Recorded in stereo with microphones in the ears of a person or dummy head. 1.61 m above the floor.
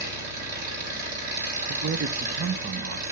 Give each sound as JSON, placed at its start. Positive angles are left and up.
{"t": 0.0, "sound": "an engine running", "side_deg": -45, "distance_m": 7.0}
{"t": 1.7, "sound": "a man speaking", "side_deg": -55, "distance_m": 0.8}